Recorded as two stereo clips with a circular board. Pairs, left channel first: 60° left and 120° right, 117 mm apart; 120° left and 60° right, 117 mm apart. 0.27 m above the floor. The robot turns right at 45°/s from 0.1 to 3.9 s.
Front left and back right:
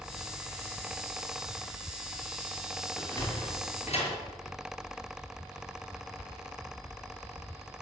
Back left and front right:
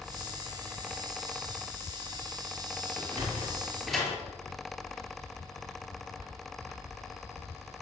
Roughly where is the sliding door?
Ahead.